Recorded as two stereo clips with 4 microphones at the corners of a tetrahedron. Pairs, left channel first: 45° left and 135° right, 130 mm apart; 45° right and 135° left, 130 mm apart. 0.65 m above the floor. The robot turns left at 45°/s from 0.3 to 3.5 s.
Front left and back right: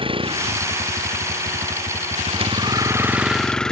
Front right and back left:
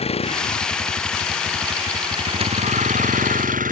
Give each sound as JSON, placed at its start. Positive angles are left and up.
{"t": 0.0, "sound": "a vehicle", "azimuth_deg": -85}